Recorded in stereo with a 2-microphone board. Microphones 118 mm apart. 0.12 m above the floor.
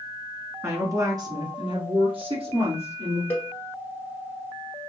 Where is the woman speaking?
25° right (ahead or behind), 1.2 m; by 3.2 s 60° right (ahead or behind), 2 m.